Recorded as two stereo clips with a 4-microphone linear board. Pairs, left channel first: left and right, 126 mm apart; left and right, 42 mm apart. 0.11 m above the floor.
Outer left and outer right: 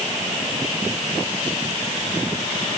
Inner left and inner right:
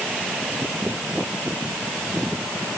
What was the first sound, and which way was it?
Only background noise.